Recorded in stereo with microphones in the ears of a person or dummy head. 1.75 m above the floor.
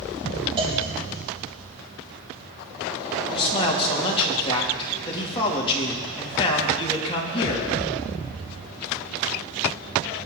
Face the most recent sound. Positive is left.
turn(degrees=30)  # may be behind; listen again after turning